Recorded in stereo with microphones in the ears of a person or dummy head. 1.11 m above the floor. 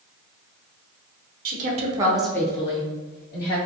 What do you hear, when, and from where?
1.4 s a woman speaking: 50° right (ahead or behind), 0.7 m; by 3.6 s 50° left (ahead or behind), 1.0 m